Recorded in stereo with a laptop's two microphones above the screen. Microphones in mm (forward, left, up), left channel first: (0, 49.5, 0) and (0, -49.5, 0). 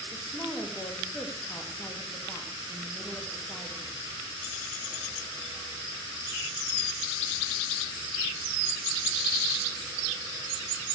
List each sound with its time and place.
0.1 s a woman speaking: 35° left (ahead or behind), 2.0 m